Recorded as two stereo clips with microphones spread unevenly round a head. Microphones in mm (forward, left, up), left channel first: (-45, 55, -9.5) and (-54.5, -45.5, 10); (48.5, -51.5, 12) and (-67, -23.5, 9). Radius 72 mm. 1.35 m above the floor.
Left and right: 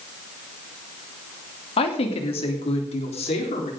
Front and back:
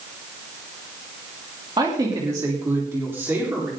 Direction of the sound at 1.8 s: 105° left.